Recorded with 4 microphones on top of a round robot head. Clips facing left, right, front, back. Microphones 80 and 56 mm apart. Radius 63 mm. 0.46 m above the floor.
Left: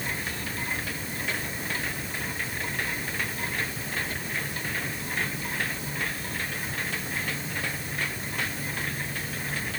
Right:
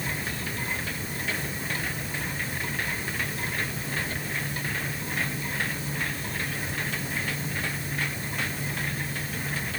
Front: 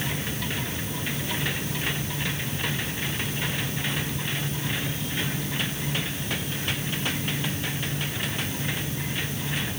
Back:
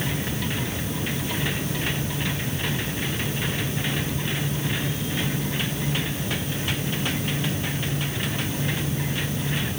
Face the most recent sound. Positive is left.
No sound to turn to.